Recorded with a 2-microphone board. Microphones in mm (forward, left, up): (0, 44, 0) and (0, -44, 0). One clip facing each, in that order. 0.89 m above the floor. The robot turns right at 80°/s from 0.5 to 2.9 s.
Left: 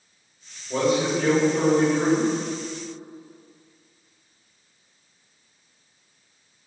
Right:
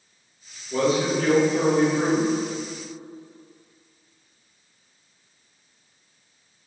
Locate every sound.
0.7 s a man speaking: 90° left, 1.5 m; by 2.3 s 145° right, 1.5 m